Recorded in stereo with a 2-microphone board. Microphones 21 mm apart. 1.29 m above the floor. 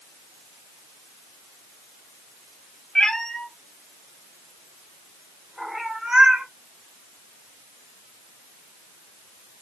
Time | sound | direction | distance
3.0 | a cat meowing | 35° left (ahead or behind) | 1.5 m